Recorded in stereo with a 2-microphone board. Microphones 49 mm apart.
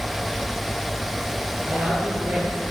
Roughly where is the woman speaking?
Right.